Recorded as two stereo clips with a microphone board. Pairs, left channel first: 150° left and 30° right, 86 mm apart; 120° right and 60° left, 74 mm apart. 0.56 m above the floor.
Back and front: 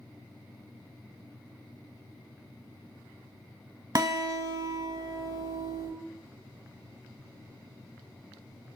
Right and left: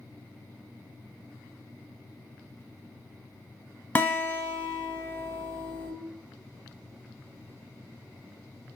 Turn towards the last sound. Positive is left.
turn(degrees=-65)